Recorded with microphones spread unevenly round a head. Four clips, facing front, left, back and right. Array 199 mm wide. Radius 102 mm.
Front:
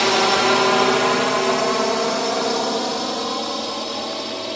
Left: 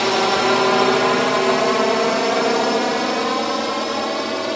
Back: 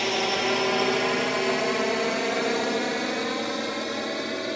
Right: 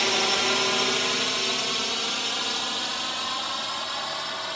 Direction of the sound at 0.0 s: 45° left.